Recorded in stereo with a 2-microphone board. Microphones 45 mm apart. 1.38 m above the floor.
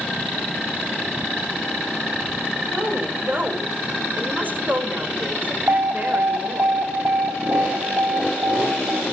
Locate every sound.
2.7 s a woman speaking: 40° right (ahead or behind), 4.5 m
5.7 s an alarm: 70° right (ahead or behind), 2.5 m